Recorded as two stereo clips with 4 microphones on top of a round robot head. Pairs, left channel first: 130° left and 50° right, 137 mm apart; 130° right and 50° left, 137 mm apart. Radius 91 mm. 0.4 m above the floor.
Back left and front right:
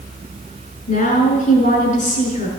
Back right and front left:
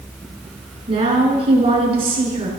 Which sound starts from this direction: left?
A woman speaking, at 0.9 s.